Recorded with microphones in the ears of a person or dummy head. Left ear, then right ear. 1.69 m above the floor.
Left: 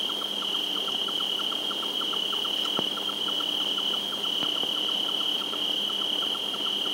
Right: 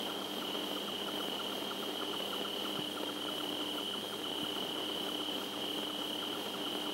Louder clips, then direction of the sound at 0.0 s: Left 10 dB; 85° left.